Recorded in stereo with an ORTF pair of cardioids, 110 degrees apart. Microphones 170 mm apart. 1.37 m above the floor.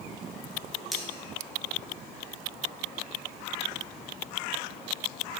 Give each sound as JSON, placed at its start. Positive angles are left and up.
{"t": 0.9, "sound": "cutlery clinking", "azimuth_deg": 0, "distance_m": 1.8}